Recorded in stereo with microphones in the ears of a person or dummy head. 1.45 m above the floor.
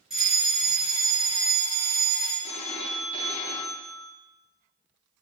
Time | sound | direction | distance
0.1 | a fire alarm | centre (ahead or behind) | 3 m
2.4 | a phone ringing | 35° left (ahead or behind) | 0.9 m